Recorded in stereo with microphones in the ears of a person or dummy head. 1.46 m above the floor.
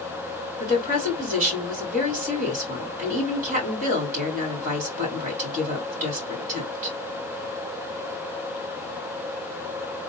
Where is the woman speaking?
50° right (ahead or behind), 3 m.